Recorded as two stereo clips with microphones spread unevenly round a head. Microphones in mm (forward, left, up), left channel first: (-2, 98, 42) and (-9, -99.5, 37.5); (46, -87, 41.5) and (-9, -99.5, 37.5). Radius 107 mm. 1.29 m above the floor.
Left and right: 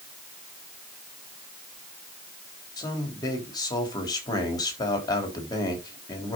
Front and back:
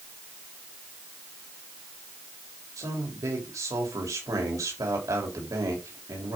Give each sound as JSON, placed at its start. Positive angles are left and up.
{"t": 2.8, "sound": "a man speaking", "azimuth_deg": 160, "distance_m": 3.5}